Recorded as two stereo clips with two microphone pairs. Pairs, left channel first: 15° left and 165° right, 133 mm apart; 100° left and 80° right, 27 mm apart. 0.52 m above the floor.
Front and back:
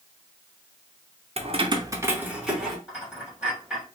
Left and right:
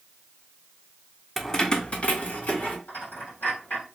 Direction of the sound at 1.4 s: 175° right.